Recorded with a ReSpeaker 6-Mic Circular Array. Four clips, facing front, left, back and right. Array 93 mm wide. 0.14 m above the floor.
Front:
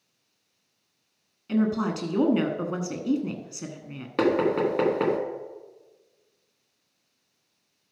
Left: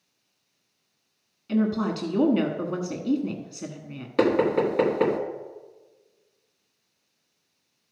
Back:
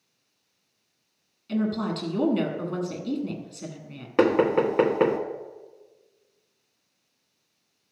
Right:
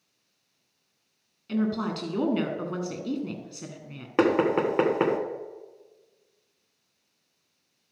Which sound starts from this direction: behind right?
Knocking, at 4.2 s.